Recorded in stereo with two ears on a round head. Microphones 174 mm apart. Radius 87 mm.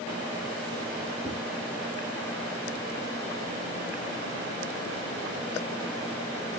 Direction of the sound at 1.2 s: 5° left (ahead or behind).